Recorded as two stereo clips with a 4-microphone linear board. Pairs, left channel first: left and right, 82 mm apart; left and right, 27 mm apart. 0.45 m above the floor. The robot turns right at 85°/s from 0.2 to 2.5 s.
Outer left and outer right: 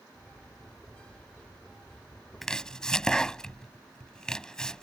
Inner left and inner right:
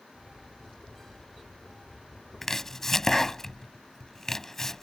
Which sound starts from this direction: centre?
Chopping, at 2.4 s.